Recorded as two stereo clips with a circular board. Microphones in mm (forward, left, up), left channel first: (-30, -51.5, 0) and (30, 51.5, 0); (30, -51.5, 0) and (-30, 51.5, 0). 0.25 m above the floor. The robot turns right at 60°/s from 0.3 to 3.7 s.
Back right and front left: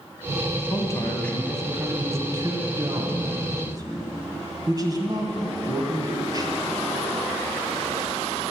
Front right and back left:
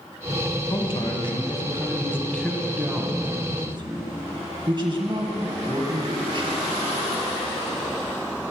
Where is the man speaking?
80° right, 2 m; by 6.5 s 100° left, 2 m.